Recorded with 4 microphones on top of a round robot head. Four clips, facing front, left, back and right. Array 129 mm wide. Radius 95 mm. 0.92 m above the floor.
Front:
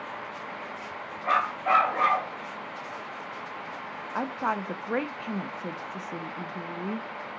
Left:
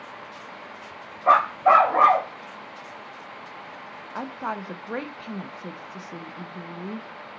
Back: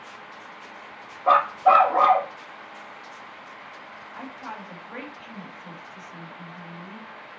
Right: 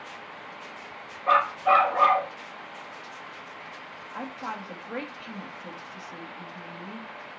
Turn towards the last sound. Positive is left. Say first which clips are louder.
# left 4 dB, front 9 dB
turn(degrees=20)